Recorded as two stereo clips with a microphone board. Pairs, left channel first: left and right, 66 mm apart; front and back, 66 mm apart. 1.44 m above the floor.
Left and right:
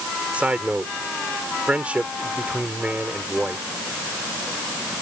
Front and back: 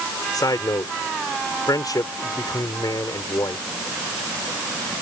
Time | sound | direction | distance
0.3 | a man speaking | 20° right | ?